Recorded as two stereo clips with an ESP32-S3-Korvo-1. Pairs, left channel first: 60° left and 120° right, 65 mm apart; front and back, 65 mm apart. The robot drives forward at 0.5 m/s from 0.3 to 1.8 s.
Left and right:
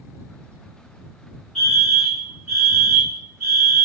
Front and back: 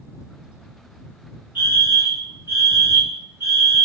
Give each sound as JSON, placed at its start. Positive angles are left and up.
{"t": 1.6, "sound": "a fire alarm", "azimuth_deg": 145, "distance_m": 2.5}